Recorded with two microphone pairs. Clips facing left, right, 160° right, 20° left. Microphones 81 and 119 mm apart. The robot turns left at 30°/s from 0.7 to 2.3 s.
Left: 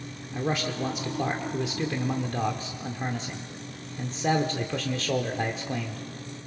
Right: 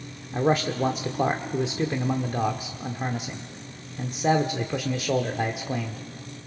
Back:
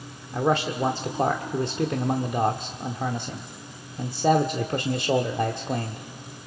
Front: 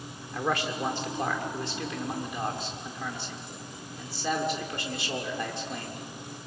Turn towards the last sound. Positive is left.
turn(degrees=-160)